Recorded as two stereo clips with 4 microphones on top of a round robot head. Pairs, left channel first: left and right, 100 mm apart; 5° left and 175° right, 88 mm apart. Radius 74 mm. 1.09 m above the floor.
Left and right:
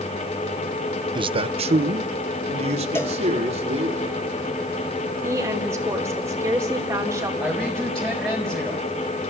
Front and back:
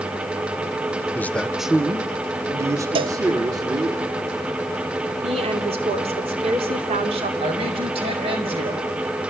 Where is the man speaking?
60° right, 0.7 m; by 4.0 s 120° right, 3 m.